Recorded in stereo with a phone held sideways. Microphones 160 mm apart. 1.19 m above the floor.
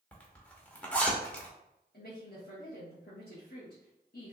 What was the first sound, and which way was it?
A zipper, 10° left (ahead or behind).